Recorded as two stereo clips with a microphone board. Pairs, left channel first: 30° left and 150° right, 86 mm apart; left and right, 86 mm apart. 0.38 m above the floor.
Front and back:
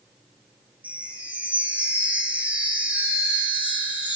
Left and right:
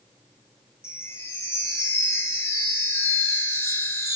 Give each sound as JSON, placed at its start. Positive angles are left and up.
{"t": 0.8, "sound": "a chime", "azimuth_deg": 140, "distance_m": 0.6}